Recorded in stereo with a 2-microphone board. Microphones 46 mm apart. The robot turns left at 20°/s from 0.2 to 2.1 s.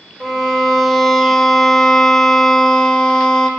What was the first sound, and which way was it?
A violin, 165° right.